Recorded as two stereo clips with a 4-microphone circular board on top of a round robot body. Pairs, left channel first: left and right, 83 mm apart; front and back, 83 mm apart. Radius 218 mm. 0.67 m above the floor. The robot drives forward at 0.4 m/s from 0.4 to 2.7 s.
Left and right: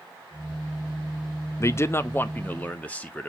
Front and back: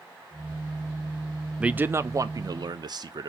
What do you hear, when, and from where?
1.6 s a man speaking: 105° left, 0.5 m; by 3.3 s 160° left, 0.7 m